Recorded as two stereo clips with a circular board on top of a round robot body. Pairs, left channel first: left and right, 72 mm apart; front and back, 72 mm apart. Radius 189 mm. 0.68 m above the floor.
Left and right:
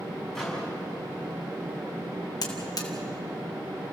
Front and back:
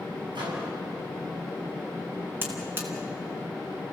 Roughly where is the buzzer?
Behind left.